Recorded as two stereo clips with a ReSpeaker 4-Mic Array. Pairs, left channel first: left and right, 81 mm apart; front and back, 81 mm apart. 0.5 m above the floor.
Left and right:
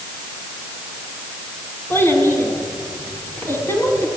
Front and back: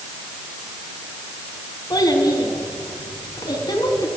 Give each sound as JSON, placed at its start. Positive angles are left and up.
{"t": 1.9, "sound": "a child speaking", "azimuth_deg": 30, "distance_m": 4.0}